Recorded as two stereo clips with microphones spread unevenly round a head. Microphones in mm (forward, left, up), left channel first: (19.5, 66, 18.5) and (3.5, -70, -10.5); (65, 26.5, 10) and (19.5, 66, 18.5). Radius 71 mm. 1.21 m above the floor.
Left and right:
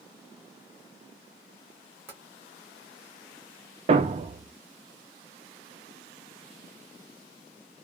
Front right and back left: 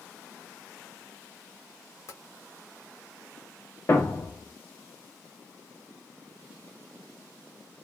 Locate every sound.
2.1 s tapping: 15° right, 1.2 m
3.9 s a thud: 95° right, 0.5 m